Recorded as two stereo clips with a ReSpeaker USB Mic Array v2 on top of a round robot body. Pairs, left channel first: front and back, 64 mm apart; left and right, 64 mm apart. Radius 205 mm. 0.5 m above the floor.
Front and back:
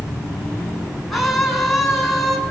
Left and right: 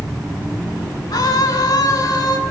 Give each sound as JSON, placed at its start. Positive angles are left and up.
{"t": 1.1, "sound": "a scream", "azimuth_deg": 90, "distance_m": 8.5}